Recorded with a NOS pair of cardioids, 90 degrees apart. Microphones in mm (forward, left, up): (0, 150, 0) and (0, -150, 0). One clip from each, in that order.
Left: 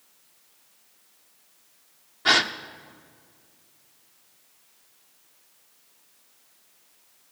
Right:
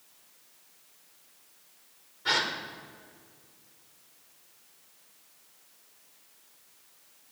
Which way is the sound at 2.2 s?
65° left.